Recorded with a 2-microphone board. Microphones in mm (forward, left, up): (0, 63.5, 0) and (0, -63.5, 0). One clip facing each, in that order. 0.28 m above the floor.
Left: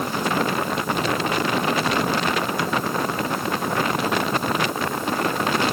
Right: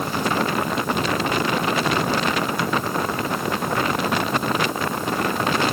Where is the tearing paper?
I don't hear tearing paper.